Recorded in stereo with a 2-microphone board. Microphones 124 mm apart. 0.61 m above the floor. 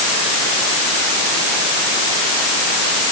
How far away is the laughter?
No laughter in this recording.